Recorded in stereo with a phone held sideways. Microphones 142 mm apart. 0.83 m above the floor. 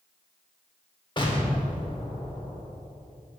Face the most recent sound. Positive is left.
turn(degrees=35)  # may be behind; listen again after turning